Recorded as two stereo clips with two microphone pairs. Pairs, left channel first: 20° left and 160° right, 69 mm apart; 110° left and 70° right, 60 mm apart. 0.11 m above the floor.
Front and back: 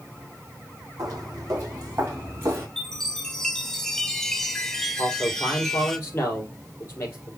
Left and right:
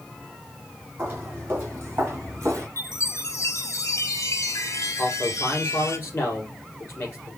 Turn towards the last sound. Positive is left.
turn(degrees=70)